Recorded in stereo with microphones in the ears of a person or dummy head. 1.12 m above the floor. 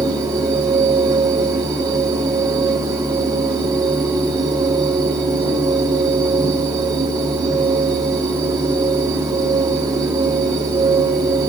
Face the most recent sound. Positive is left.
turn(degrees=-20)  # may be behind; listen again after turning